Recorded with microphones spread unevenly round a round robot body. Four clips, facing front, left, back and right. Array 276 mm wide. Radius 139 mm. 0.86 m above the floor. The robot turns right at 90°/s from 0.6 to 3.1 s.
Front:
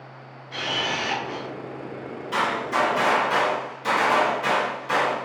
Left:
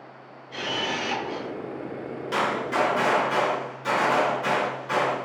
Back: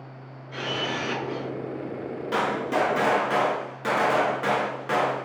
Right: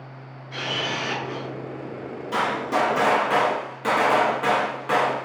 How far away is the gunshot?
About 0.6 m.